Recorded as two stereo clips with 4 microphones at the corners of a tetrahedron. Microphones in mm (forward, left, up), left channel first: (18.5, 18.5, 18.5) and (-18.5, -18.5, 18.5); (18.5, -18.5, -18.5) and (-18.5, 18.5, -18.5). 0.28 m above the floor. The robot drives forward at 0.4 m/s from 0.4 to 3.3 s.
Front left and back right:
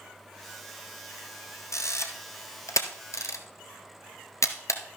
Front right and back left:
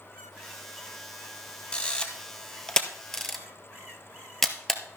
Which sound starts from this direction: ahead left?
A camera shutter, at 1.7 s.